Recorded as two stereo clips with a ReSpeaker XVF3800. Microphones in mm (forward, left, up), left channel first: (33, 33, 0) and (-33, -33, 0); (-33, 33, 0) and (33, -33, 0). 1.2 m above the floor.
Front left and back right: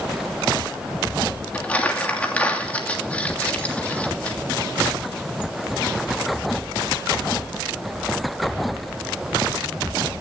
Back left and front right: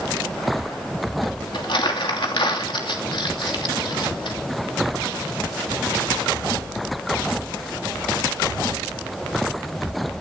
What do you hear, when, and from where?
1.5 s crumpling: 120° left, 3 m